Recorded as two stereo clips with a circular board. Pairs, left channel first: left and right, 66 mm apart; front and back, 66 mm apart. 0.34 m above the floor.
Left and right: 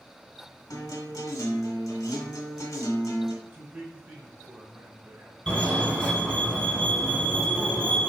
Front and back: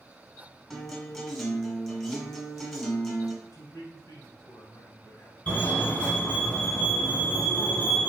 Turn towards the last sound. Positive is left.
turn(degrees=25)